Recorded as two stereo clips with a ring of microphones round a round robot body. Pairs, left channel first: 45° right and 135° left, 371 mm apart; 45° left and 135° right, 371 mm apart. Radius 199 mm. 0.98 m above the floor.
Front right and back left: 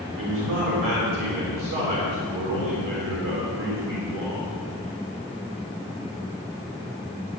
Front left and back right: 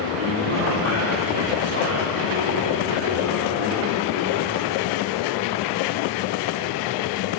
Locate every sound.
0.1 s a man speaking: 175° left, 3.5 m